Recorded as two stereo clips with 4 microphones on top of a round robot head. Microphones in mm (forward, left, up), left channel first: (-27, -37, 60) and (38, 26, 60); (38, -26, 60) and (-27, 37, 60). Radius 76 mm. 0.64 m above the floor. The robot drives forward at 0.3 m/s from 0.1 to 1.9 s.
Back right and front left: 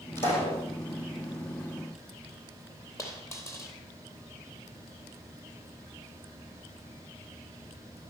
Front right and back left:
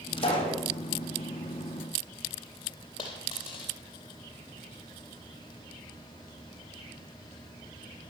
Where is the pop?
70° right, 6.5 m; by 0.6 s 75° right, 6 m.